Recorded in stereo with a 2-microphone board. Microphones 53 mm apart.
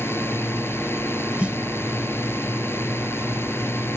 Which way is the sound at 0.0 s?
50° left (ahead or behind).